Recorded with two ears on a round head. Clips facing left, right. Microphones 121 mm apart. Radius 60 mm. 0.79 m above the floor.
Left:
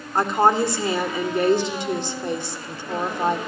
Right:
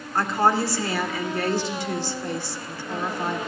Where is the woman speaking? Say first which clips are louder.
Left 3 dB; 15° left (ahead or behind), 2.5 m.